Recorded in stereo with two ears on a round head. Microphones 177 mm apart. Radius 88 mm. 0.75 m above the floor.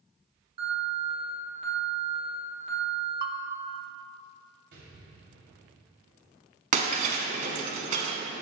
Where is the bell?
45° right (ahead or behind), 0.6 m.